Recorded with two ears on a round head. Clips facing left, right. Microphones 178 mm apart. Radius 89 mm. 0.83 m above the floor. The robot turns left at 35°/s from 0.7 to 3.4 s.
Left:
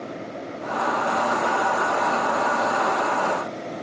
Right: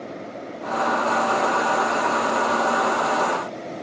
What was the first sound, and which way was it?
Only background noise.